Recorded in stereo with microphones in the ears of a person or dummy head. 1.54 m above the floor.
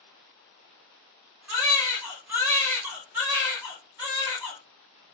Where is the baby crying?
10° right (ahead or behind), 1.3 m.